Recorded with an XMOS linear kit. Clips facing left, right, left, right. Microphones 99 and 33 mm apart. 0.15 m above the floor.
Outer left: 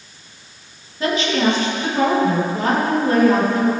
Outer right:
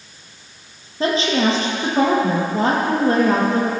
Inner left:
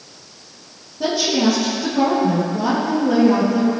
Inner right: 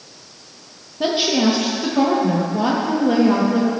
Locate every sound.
1.0 s a woman speaking: 35° right (ahead or behind), 4 m